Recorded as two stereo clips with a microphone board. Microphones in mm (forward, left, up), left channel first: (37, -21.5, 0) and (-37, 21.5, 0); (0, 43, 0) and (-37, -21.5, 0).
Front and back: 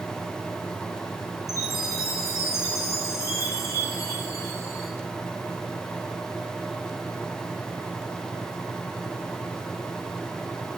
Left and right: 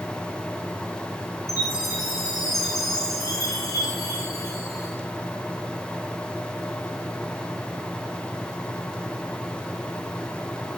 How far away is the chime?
About 3.5 m.